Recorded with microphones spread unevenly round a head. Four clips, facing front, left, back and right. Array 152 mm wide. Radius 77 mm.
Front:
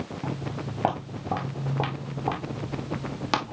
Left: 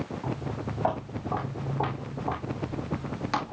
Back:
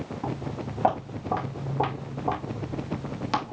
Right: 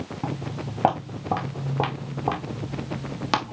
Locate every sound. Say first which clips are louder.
0.2 s footsteps: right 2 dB, back 2 dB; 70° right, 4 m; by 3.5 s 45° right, 2.5 m